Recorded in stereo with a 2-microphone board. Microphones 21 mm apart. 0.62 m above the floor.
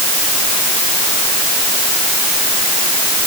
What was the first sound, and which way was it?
Only background noise.